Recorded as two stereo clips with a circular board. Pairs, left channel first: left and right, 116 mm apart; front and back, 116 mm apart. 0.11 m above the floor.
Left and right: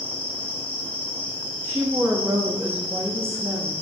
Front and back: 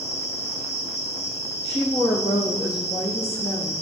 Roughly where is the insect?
Ahead.